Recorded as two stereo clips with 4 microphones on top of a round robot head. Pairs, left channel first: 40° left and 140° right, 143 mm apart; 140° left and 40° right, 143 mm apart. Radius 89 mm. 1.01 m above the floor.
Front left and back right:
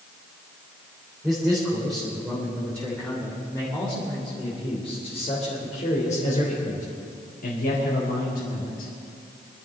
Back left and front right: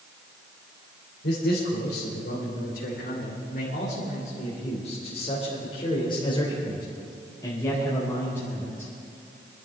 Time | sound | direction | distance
1.2 | a man speaking | 135° left | 3.5 m